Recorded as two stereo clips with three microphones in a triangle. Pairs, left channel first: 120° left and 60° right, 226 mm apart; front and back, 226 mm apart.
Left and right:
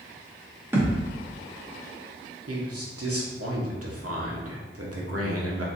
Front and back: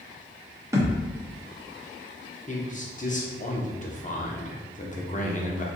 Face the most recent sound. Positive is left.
turn(degrees=-60)